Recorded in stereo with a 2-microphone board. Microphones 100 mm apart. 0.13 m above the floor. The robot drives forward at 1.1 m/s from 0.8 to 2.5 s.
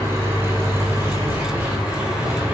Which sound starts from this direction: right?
An engine running, at 0.0 s.